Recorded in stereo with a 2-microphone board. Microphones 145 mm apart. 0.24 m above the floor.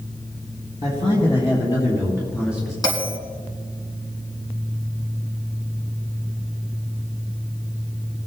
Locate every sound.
0.8 s a man speaking: 50° left (ahead or behind), 3.5 m; by 2.7 s 10° left (ahead or behind), 3 m
2.8 s a bell: 25° left (ahead or behind), 2.0 m